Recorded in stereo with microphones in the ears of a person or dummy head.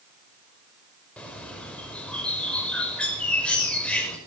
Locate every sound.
1.2 s a bird: 5° left (ahead or behind), 5.5 m